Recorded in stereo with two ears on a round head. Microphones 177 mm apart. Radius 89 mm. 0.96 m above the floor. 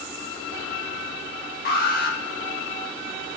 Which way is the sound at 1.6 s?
50° left (ahead or behind).